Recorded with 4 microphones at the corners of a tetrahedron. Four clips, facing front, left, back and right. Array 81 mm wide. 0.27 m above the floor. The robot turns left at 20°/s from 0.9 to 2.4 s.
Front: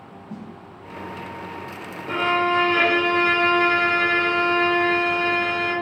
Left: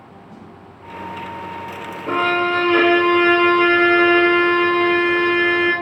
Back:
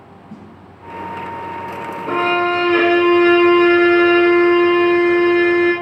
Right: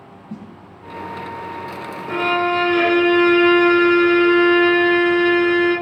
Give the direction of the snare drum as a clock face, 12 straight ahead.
3 o'clock.